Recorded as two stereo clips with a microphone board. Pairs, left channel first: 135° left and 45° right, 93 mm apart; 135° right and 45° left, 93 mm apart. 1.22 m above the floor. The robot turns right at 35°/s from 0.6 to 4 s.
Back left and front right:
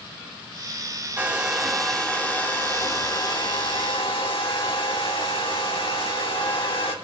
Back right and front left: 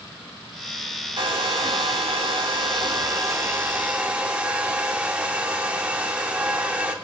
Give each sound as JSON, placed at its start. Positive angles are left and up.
{"t": 1.2, "sound": "a hair dryer", "azimuth_deg": 25, "distance_m": 1.7}